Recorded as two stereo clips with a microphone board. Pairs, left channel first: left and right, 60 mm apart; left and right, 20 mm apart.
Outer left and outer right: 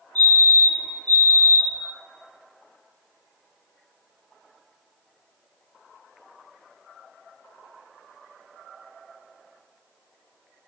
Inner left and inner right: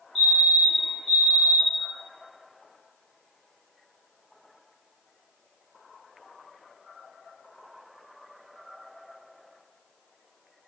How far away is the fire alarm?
About 1.9 m.